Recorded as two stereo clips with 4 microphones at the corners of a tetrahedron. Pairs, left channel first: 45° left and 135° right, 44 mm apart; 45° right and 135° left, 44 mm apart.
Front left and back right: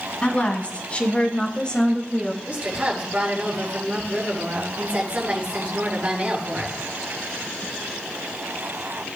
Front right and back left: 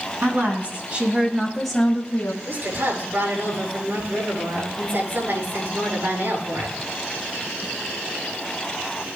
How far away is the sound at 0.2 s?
About 2.5 m.